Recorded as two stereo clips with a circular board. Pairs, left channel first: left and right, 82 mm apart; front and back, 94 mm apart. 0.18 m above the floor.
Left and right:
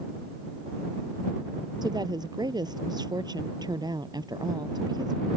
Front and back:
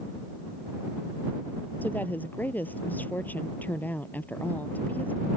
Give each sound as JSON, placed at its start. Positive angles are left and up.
{"t": 1.8, "sound": "a woman speaking", "azimuth_deg": -70}